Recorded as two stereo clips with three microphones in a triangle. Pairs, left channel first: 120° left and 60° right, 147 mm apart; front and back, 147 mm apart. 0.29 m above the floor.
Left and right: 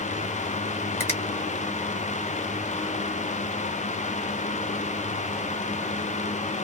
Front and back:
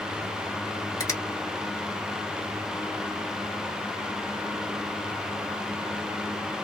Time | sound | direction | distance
1.0 | a finger snap | 55° left | 1.7 m